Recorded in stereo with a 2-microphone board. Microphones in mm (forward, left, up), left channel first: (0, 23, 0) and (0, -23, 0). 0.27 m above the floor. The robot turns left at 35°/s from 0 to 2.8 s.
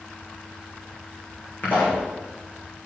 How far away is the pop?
About 4 m.